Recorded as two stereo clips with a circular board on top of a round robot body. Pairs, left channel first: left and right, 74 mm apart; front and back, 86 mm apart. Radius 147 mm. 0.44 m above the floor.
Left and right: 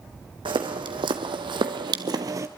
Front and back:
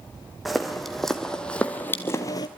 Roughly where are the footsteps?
Right.